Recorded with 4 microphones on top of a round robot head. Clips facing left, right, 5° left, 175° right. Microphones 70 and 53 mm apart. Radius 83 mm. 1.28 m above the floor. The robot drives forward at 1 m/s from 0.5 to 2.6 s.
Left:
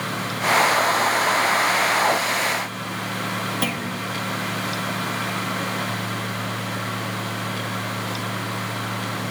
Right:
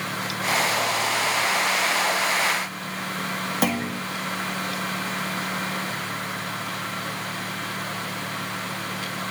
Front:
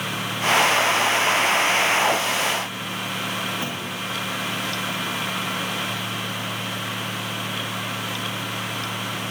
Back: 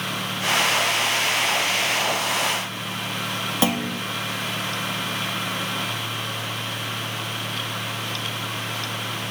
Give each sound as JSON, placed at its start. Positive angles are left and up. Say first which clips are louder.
{"t": 3.6, "sound": "a clunk", "louder": "right 2 dB, back 6 dB", "azimuth_deg": -160, "distance_m": 1.6}